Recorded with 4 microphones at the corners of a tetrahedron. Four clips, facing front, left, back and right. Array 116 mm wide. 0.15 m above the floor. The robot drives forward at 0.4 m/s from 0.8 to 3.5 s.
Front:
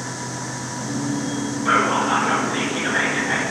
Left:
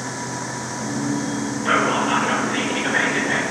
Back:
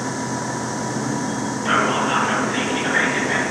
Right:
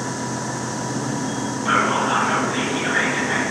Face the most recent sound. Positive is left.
turn(degrees=140)